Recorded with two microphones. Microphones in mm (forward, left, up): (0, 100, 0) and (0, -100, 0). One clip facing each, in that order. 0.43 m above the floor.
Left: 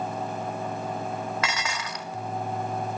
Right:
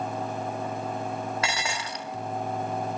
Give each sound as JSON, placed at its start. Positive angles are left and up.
{"t": 1.4, "sound": "dishes clattering", "side_deg": -30, "distance_m": 1.4}